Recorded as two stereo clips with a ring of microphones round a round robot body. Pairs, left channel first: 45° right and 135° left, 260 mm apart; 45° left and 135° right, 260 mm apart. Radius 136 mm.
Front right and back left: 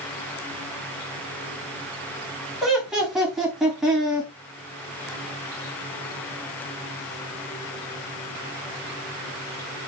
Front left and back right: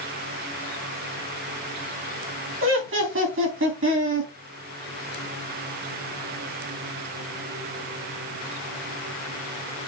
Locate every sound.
2.6 s laughter: 135° right, 1.4 m